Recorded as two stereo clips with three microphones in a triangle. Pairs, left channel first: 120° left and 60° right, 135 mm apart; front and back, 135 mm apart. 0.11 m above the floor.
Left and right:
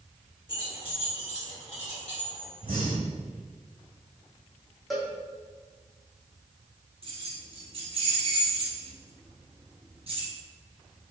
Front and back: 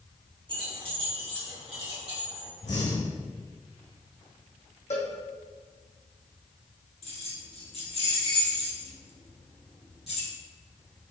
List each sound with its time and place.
0.5 s keys jangling: 150° left, 1.5 m
2.6 s breathing: 15° right, 1.3 m
4.9 s a cowbell: 30° left, 1.1 m
7.0 s keys jangling: 25° right, 1.9 m